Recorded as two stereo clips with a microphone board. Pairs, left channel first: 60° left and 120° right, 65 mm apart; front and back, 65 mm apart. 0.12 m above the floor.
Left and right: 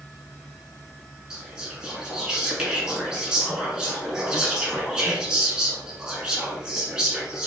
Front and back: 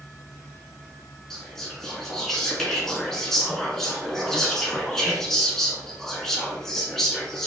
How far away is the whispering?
About 1.1 m.